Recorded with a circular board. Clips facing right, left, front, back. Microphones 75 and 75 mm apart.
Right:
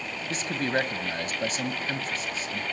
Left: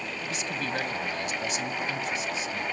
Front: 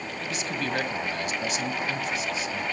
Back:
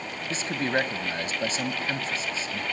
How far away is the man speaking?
About 1.6 m.